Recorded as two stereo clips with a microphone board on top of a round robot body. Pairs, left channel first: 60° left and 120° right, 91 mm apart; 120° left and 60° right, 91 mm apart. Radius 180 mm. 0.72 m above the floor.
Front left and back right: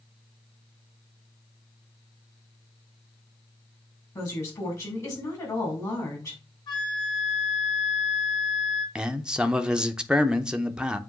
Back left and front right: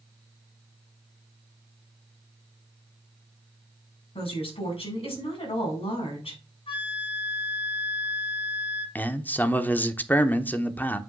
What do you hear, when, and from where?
4.2 s a woman speaking: 115° left, 4 m
6.7 s a flute: 100° left, 3.5 m
8.9 s a man speaking: 170° left, 1.0 m